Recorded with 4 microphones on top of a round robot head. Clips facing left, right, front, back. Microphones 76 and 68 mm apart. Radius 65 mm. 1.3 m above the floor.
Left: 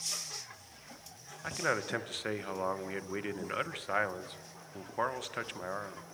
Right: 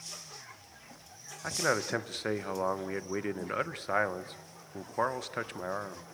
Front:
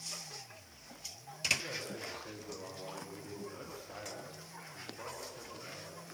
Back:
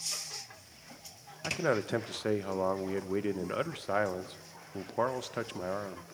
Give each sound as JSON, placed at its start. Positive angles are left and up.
{"t": 1.4, "sound": "a man speaking", "azimuth_deg": -165, "distance_m": 1.3}